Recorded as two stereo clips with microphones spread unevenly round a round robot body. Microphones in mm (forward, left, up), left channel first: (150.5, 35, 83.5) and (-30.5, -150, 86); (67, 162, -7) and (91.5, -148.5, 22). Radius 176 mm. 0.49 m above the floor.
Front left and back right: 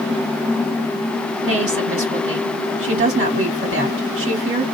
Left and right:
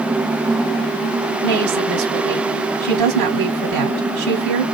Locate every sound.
1.4 s a woman speaking: 90° right, 1.7 m